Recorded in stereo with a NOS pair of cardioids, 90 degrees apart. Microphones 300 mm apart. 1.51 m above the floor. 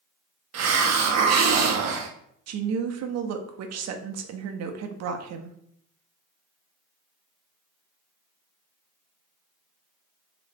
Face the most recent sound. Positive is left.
turn(degrees=-60)